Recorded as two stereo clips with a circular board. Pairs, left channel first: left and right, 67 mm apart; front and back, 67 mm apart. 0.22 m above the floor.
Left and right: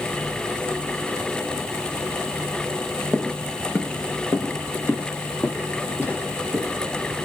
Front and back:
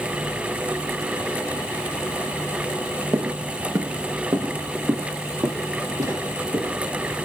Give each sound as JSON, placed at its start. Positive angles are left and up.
{"t": 3.1, "sound": "footsteps", "azimuth_deg": 165, "distance_m": 0.7}